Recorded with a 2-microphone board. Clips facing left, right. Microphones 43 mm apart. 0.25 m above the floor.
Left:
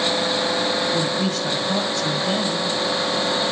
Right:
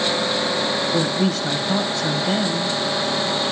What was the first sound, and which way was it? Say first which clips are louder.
A woman speaking: right 2 dB; 5° right (ahead or behind).